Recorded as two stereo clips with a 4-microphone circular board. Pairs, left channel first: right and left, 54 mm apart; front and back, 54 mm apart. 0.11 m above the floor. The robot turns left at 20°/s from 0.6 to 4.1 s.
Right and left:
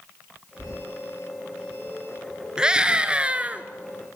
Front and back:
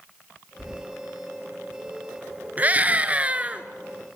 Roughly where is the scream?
Behind left.